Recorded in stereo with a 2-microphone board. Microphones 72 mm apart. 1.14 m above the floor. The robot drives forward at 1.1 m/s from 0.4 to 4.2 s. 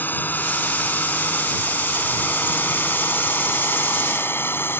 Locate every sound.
0.0 s a drone: 20° left (ahead or behind); by 4.8 s 25° left (ahead or behind)